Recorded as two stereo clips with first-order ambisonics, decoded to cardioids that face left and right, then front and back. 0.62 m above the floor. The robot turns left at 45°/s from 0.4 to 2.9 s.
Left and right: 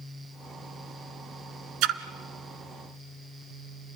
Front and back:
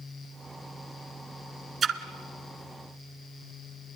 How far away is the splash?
About 1.2 m.